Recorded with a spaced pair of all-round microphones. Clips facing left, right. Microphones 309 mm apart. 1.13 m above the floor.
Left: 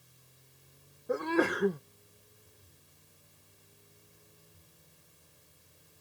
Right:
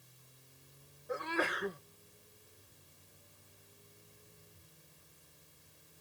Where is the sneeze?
55° left (ahead or behind).